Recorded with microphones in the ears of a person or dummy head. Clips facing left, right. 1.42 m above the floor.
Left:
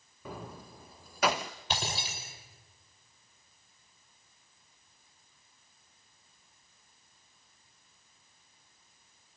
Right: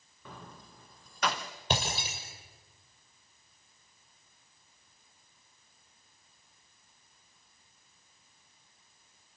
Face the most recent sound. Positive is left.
turn(degrees=-45)  # may be behind; listen again after turning